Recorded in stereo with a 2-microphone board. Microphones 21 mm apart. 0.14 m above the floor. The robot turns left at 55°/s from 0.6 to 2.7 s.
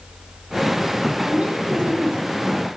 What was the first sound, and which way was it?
A woman speaking, 85° right.